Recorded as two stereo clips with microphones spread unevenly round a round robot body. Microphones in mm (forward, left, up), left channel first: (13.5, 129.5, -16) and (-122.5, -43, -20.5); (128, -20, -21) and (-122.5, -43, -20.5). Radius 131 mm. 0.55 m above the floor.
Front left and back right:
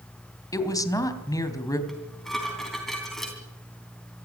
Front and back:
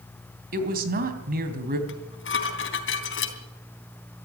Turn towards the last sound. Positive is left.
turn(degrees=-40)